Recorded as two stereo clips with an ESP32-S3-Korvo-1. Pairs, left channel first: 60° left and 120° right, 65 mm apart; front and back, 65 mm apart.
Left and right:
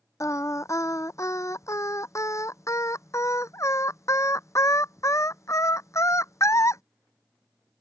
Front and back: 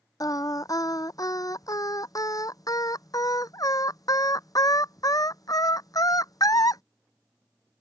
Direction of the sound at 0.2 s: 20° left.